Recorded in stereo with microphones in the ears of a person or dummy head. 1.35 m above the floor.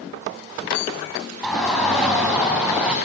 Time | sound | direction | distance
1.4 | a shout | 5° left (ahead or behind) | 8 m